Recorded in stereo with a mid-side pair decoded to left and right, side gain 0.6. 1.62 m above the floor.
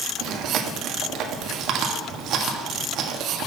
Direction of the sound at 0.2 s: 60° right.